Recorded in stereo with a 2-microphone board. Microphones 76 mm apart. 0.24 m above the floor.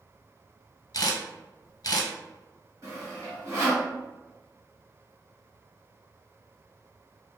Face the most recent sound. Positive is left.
turn(degrees=-45)  # may be behind; listen again after turning